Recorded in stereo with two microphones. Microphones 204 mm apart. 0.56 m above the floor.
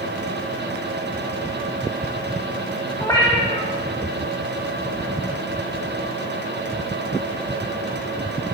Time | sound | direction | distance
3.0 | a cat meowing | 15° left (ahead or behind) | 1.2 m